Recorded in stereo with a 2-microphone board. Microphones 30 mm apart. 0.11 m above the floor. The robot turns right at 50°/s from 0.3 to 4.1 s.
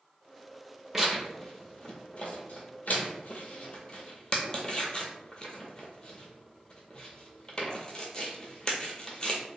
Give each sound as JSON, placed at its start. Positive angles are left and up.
{"t": 0.9, "sound": "tearing paper", "side_deg": -10, "distance_m": 0.6}